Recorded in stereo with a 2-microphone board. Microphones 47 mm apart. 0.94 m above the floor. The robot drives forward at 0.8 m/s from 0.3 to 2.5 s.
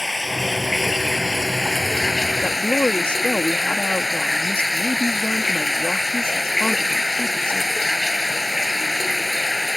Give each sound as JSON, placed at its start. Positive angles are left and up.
{"t": 0.0, "sound": "running water", "side_deg": -5}
{"t": 2.4, "sound": "a woman speaking", "side_deg": 30}